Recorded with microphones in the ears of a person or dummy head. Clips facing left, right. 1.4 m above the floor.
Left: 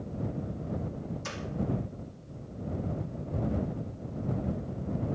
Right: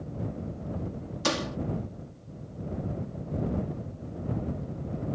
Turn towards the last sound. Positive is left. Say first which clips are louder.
# right 8 dB
turn(degrees=-80)